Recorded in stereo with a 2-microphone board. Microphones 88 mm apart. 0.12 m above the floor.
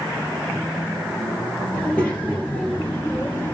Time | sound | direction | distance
1.7 | a child speaking | 15° left (ahead or behind) | 1.8 m